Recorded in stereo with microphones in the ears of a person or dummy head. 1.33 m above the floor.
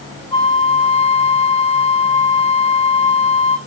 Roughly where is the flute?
Left.